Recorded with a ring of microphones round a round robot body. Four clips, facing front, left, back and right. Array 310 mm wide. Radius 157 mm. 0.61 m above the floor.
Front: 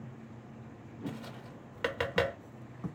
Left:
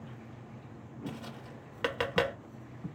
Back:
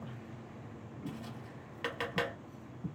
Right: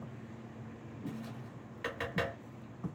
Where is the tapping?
65° left, 1.1 m.